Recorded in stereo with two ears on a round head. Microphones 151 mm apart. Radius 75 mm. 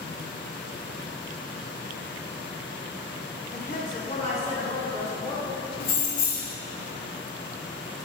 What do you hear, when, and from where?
3.5 s a woman speaking: 50° left (ahead or behind), 0.9 m; by 5.7 s 25° left (ahead or behind), 2.5 m
5.8 s keys jangling: 50° left (ahead or behind), 0.9 m